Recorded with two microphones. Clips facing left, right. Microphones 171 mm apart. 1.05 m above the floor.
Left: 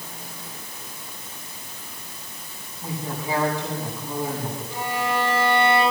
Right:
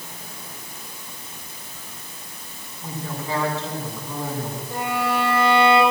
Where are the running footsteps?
No running footsteps in this recording.